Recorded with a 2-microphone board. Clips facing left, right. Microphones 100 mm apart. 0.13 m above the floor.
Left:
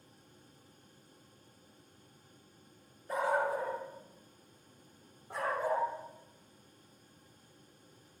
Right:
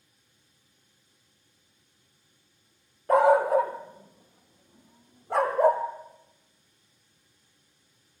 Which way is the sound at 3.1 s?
65° right (ahead or behind).